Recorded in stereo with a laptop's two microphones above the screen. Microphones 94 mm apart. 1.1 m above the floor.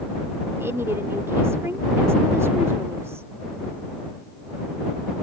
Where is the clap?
I don't hear a clap.